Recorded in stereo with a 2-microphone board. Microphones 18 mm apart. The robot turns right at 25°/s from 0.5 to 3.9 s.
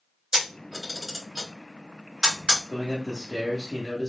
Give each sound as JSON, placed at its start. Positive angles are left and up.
{"t": 0.3, "sound": "a camera shutter", "side_deg": -30, "distance_m": 2.0}
{"t": 2.7, "sound": "a man speaking", "azimuth_deg": -85, "distance_m": 0.9}